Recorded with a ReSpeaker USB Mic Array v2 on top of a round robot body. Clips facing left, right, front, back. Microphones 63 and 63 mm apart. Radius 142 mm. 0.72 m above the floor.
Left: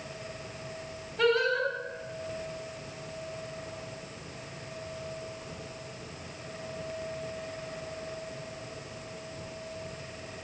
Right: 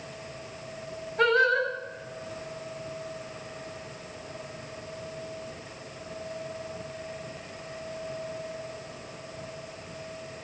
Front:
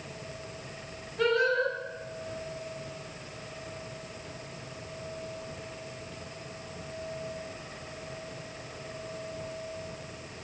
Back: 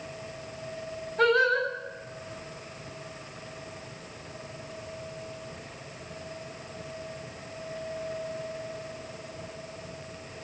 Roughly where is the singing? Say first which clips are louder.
Right 3 dB, back 3 dB; behind right.